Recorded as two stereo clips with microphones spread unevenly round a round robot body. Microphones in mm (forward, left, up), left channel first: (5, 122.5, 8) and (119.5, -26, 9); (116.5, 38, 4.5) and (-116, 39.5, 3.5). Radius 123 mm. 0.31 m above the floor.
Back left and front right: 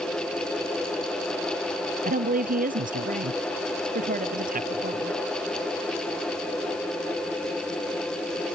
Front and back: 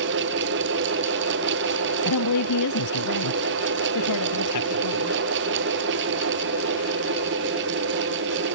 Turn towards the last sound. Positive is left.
turn(degrees=-10)